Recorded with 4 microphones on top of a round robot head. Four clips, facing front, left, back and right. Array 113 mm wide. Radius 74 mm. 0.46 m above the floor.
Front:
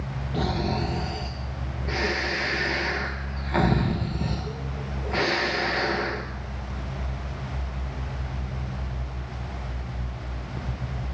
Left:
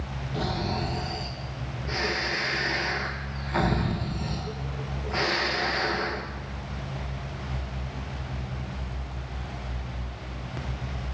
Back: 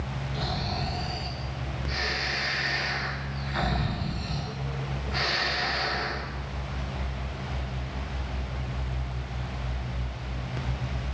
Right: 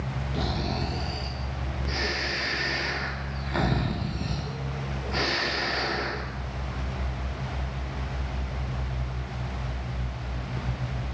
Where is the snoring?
20° right, 3.5 m.